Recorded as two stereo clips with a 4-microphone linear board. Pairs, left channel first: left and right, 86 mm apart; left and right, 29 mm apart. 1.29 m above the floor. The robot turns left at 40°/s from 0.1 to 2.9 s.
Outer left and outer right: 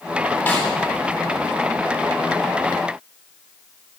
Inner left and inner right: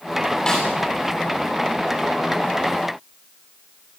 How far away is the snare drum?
About 9.5 m.